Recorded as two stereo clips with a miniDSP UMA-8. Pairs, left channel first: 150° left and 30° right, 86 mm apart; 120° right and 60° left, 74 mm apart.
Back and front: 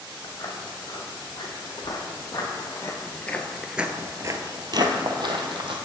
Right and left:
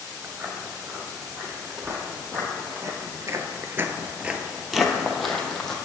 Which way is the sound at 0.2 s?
120° left.